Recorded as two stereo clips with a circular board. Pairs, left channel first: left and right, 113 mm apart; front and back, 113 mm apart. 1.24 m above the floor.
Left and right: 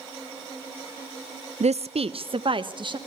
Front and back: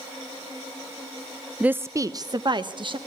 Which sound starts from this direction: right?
A woman speaking, at 1.6 s.